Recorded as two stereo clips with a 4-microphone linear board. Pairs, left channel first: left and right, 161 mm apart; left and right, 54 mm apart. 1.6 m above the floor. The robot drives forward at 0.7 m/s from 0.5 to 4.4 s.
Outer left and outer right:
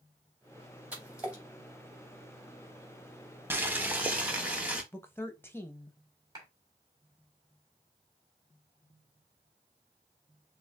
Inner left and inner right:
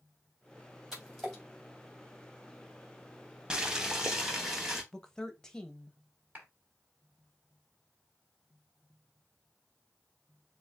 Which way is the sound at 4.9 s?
15° left (ahead or behind).